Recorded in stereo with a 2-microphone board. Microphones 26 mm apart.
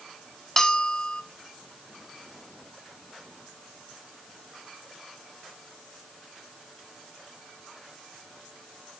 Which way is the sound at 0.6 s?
15° left (ahead or behind).